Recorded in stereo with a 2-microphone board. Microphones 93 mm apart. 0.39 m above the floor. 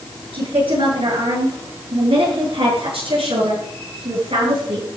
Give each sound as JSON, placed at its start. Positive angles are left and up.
{"t": 0.3, "sound": "a woman speaking", "side_deg": -70, "distance_m": 7.0}